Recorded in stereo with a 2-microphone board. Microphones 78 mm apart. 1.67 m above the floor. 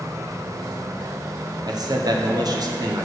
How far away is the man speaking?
About 1.0 m.